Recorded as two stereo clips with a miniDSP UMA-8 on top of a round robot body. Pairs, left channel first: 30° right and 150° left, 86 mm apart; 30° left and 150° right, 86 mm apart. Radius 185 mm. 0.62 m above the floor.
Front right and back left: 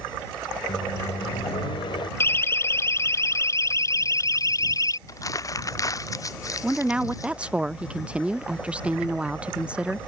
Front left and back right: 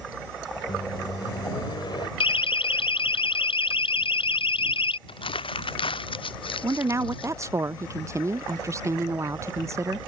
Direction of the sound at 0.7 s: 5° right.